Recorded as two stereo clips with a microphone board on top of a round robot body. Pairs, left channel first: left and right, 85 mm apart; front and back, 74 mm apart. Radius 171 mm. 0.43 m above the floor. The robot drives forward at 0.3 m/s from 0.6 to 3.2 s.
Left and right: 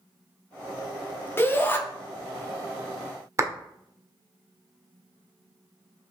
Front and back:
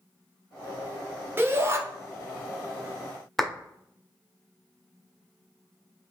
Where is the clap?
85° right, 0.9 m.